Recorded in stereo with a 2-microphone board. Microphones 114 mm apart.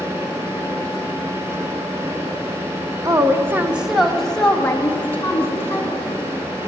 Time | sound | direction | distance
3.0 | a woman speaking | 30° right (ahead or behind) | 0.9 m